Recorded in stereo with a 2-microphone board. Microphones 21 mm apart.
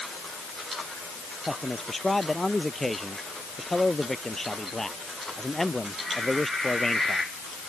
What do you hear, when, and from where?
1.5 s a man speaking: 5° left (ahead or behind); by 7.2 s 20° left (ahead or behind)